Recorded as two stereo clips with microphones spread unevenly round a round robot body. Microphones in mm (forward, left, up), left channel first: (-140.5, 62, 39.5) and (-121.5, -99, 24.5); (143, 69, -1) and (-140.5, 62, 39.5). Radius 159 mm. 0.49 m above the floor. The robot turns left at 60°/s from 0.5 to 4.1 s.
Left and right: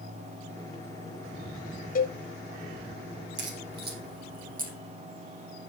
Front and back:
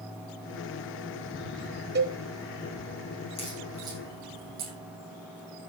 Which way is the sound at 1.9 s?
125° left.